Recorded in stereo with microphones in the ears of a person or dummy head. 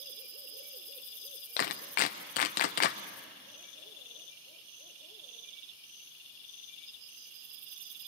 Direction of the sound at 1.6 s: 35° left (ahead or behind).